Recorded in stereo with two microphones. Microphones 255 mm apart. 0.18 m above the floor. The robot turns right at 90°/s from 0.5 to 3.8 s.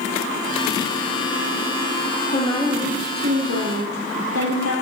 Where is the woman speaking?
145° left, 5.5 m; by 4.7 s 85° right, 5.5 m.